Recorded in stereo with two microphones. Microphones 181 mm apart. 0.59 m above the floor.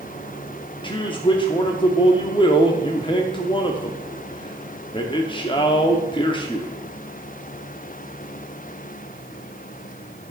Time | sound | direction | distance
0.8 | a man speaking | 25° left (ahead or behind) | 0.8 m